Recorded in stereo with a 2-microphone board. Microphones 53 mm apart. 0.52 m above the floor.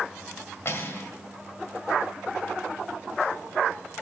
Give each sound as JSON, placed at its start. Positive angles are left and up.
{"t": 0.7, "sound": "cutlery clinking", "side_deg": 45, "distance_m": 1.7}